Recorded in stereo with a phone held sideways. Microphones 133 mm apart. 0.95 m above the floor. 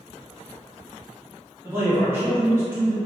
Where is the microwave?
I don't hear a microwave.